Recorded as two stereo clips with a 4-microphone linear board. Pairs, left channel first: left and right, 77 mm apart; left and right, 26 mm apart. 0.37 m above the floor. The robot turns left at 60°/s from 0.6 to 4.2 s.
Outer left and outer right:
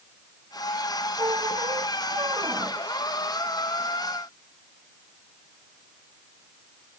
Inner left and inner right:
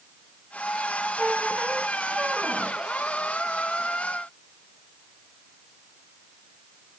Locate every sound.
1.2 s a squeak: 60° right; by 2.8 s 155° right